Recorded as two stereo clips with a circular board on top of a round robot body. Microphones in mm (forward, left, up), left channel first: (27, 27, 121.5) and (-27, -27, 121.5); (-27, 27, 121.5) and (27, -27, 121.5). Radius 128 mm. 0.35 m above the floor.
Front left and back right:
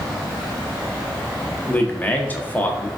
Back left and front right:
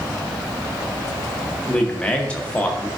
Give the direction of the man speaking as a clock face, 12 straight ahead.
9 o'clock.